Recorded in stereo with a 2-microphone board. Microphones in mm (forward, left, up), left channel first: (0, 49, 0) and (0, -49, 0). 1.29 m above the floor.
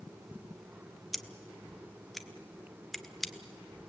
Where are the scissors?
Centre (ahead or behind), 1.2 m.